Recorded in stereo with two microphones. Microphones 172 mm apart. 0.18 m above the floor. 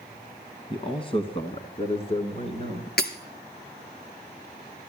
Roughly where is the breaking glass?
Left.